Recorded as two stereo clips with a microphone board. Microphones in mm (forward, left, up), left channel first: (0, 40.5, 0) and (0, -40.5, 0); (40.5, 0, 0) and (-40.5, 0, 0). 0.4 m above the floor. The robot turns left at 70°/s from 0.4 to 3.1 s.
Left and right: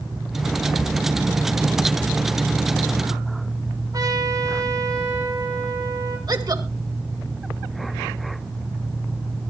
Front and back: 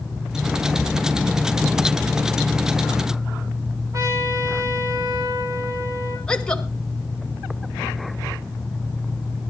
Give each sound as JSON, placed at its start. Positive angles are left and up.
{"t": 3.9, "sound": "a trumpet", "azimuth_deg": -130, "distance_m": 9.5}
{"t": 6.3, "sound": "a woman speaking", "azimuth_deg": -75, "distance_m": 2.0}